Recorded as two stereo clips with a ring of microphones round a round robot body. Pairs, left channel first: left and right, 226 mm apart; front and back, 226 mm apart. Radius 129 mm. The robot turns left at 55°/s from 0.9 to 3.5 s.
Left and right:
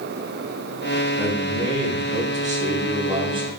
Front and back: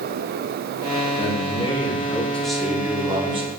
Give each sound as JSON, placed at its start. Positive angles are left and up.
{"t": 1.2, "sound": "a man speaking", "azimuth_deg": -15, "distance_m": 0.9}